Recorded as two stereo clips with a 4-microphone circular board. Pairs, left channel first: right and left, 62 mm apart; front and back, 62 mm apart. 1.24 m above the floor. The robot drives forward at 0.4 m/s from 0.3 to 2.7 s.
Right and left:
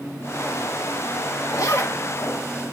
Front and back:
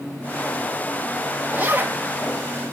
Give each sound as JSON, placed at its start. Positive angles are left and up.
{"t": 1.5, "sound": "a zipper", "azimuth_deg": -115, "distance_m": 1.3}